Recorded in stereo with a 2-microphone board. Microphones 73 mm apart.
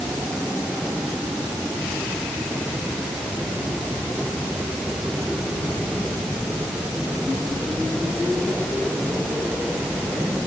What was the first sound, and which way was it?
Only background noise.